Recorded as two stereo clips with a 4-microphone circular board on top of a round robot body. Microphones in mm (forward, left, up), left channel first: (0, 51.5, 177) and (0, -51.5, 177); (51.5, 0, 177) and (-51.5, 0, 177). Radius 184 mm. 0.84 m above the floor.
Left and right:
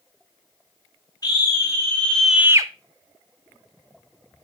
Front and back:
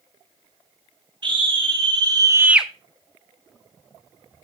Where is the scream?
140° left, 1.9 m; by 2.7 s 90° right, 0.9 m.